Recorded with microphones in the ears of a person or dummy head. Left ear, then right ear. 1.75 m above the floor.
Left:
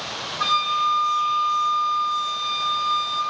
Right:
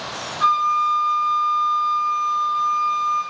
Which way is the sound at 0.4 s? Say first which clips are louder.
Right 3 dB; 45° left (ahead or behind).